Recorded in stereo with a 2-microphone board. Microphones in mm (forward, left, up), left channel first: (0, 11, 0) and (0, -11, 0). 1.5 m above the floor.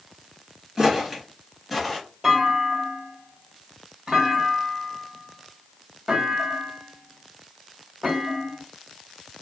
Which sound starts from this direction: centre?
A clunk, at 2.2 s.